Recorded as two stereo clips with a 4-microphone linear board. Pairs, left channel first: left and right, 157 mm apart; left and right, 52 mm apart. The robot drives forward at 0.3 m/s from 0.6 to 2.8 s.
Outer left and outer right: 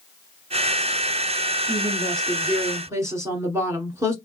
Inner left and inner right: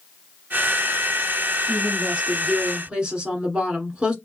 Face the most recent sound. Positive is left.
turn(degrees=-20)  # may be behind; listen again after turning